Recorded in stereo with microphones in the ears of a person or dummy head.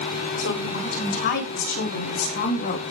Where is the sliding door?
I don't hear a sliding door.